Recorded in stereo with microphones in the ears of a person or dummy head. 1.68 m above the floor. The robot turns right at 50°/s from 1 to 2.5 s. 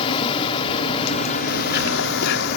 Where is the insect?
35° left; by 2.6 s 110° left.